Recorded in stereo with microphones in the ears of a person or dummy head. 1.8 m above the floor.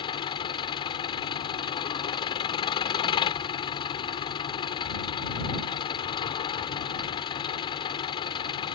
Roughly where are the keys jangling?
I don't hear keys jangling.